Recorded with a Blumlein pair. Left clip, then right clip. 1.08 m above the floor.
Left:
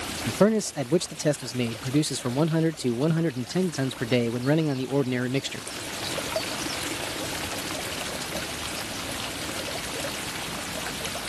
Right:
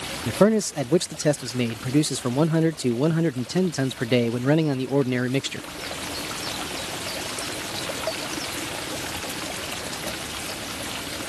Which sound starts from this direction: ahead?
A man speaking, at 0.3 s.